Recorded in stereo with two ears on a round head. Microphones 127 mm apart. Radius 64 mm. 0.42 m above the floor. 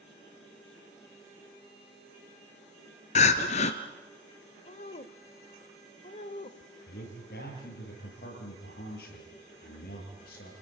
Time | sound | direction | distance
3.1 | crying | 50° left (ahead or behind) | 1.6 m
4.7 | a woman speaking | 45° left (ahead or behind) | 1.3 m
6.9 | a man speaking | 75° left (ahead or behind) | 9 m